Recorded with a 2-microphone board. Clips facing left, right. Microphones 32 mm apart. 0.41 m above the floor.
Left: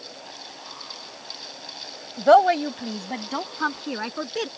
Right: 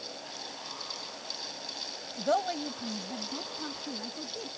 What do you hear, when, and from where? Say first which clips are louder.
2.2 s a woman speaking: left 14 dB; 60° left (ahead or behind); by 4.5 s 75° left (ahead or behind)